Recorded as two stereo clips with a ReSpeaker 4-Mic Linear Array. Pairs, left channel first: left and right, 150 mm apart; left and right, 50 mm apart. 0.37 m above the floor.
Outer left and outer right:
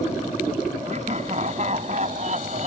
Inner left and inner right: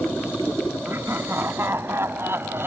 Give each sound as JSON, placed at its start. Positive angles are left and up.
{"t": 0.8, "sound": "laughter", "side_deg": -50}